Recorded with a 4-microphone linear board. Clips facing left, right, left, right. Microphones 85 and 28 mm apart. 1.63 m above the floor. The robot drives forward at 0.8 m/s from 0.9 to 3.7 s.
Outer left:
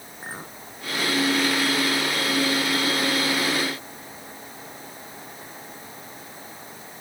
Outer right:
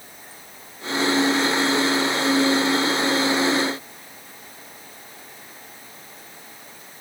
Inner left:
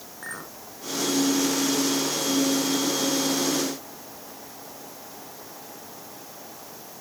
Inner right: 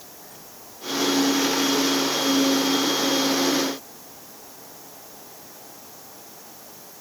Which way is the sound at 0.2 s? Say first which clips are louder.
Outer left 8 dB, inner left 9 dB; 75° left (ahead or behind).